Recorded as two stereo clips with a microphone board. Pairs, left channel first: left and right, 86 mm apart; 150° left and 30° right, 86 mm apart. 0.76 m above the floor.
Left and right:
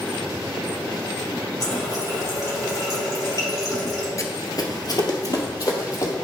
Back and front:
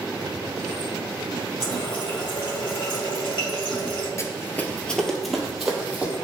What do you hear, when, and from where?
1.6 s a running tap: 135° left, 2.5 m
4.2 s running footsteps: 115° left, 0.9 m; by 6.2 s 45° left, 1.9 m